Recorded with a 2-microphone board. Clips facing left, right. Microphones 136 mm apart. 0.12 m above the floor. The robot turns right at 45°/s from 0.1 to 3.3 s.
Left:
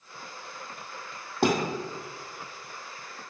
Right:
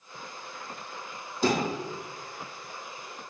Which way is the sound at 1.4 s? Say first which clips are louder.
Left 1 dB; 65° left (ahead or behind).